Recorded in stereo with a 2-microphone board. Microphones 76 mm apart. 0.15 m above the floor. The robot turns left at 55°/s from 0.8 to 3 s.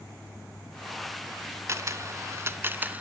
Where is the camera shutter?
35° right (ahead or behind), 0.7 m; by 3.0 s 20° right (ahead or behind), 0.7 m.